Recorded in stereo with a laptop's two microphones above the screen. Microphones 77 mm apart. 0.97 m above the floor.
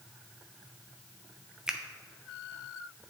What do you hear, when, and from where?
1.7 s a finger snap: 10° right (ahead or behind), 0.5 m